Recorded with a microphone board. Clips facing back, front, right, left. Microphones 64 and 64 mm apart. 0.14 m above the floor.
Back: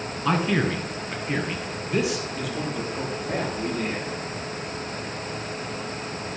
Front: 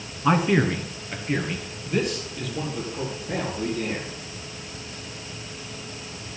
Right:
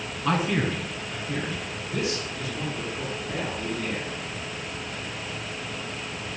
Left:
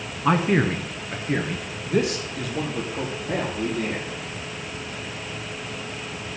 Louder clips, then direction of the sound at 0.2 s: Front 3 dB, left 5 dB; 55° left.